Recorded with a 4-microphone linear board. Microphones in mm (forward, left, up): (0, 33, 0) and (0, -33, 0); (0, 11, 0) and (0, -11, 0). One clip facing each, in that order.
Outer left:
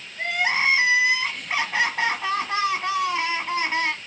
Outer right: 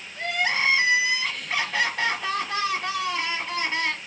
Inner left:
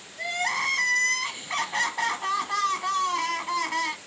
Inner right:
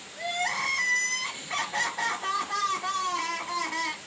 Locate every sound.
0.1 s crying: 25° left (ahead or behind), 1.1 m